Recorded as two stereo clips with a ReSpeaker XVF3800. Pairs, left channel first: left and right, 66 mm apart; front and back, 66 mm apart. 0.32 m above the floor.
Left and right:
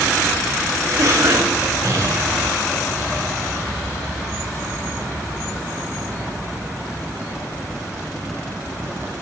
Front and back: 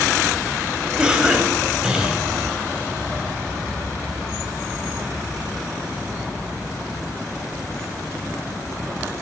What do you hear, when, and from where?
1.0 s a cough: 105° right, 2 m